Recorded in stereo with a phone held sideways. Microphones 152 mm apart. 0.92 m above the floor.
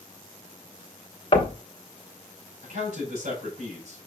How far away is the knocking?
About 1.0 m.